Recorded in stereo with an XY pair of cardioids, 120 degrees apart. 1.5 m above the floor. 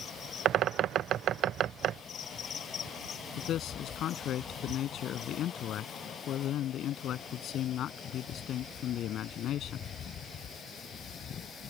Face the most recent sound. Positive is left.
turn(degrees=60)